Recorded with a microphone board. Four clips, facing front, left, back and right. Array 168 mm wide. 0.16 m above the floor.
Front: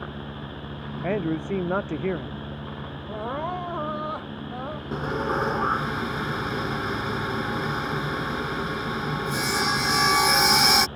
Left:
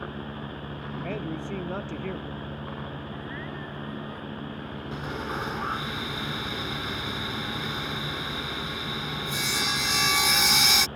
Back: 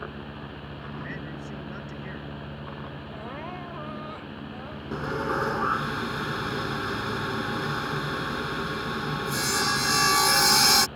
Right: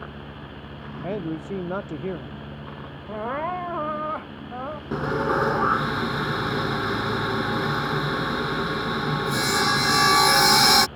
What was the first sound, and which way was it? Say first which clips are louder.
A man speaking: right 5 dB, front 11 dB; 15° right.